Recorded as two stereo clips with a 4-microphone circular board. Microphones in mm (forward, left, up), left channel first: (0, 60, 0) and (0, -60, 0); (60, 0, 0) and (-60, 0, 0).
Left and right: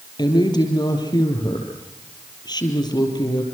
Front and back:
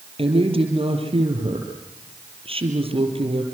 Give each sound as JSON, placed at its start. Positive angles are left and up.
{"t": 0.2, "sound": "a woman speaking", "azimuth_deg": 145, "distance_m": 5.0}